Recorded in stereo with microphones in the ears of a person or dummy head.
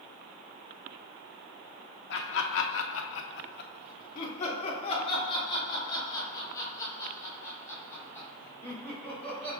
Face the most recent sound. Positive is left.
turn(degrees=10)  # may be behind; listen again after turning